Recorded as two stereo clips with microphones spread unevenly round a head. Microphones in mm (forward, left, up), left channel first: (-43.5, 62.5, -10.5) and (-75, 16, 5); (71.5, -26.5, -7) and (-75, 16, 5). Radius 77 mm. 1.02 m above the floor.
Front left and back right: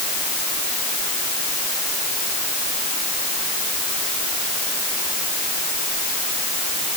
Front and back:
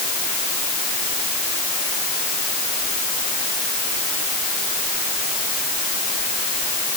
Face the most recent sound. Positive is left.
No sound to turn to.